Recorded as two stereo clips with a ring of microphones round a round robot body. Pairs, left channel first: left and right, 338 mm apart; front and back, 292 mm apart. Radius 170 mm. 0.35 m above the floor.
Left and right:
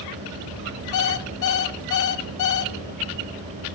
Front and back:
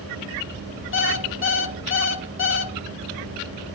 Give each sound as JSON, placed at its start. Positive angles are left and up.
{"t": 0.9, "sound": "an alarm clock", "azimuth_deg": 50, "distance_m": 1.1}